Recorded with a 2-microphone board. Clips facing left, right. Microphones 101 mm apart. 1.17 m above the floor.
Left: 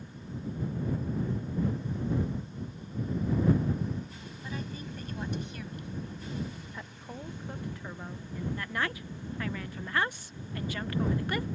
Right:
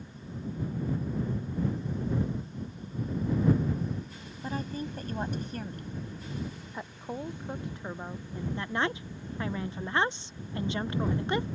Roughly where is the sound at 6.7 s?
Right.